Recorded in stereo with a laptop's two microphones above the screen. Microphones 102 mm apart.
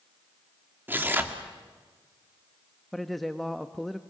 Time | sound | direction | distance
0.9 | tearing paper | 20° right (ahead or behind) | 2 m
2.9 | a man speaking | centre (ahead or behind) | 0.9 m